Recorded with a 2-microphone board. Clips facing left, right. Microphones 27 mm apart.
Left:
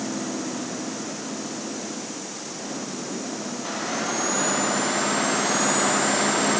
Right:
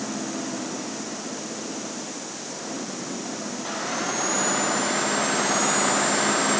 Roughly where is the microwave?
I don't hear a microwave.